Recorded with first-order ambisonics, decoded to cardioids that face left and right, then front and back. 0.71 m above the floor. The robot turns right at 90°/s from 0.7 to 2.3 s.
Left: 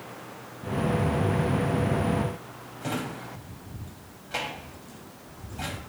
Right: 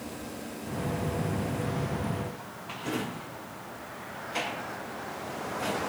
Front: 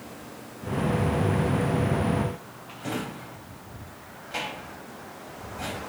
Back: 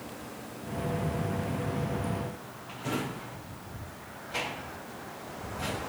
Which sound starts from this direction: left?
A drawer, at 2.8 s.